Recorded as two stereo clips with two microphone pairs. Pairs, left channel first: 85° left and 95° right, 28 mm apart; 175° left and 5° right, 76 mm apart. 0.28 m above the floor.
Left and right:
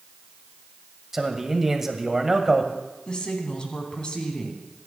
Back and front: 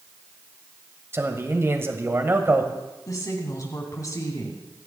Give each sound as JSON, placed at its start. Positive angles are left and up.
{"t": 1.1, "sound": "a man speaking", "azimuth_deg": -25, "distance_m": 1.5}
{"t": 3.1, "sound": "a woman speaking", "azimuth_deg": 140, "distance_m": 3.0}